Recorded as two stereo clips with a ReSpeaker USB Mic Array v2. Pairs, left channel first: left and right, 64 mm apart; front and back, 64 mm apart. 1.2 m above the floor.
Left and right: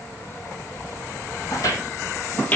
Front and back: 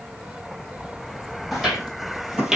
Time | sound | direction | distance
1.5 | footsteps | 95° left | 2 m